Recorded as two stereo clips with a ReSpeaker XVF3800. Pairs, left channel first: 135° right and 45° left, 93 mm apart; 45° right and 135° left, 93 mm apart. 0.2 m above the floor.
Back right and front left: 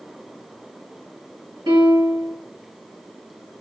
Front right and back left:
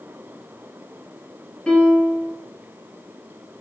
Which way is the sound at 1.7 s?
30° left.